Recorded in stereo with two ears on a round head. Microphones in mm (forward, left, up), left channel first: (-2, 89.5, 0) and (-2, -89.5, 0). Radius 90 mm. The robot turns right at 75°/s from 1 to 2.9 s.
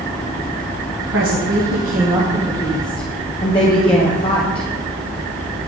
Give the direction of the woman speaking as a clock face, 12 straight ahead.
3 o'clock.